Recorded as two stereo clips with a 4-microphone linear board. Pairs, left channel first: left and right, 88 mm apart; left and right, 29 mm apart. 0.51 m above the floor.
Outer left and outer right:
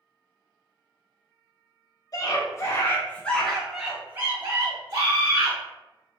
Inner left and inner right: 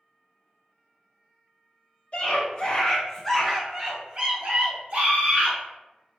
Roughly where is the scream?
Left.